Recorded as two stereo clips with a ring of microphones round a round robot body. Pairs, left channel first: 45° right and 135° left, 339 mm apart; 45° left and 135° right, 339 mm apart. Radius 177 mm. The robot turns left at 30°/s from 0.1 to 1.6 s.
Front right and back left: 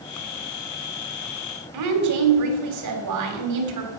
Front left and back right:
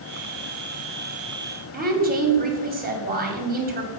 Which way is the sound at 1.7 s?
165° left.